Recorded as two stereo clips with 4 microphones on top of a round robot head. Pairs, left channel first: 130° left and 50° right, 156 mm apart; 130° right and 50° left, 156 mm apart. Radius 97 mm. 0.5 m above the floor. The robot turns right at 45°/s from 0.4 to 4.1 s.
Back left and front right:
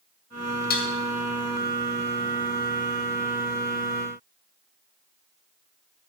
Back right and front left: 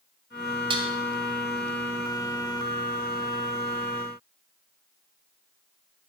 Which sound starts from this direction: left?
Dishes clattering, at 0.7 s.